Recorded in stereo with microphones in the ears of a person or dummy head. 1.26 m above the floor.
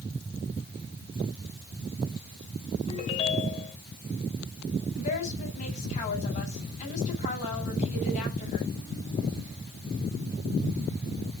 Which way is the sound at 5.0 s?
40° left (ahead or behind).